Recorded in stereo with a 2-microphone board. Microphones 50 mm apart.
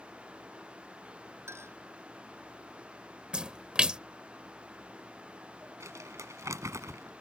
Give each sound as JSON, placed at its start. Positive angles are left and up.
{"t": 1.5, "sound": "a clink", "side_deg": -55}
{"t": 3.3, "sound": "a splash", "side_deg": -20}
{"t": 5.8, "sound": "crumpling", "side_deg": -75}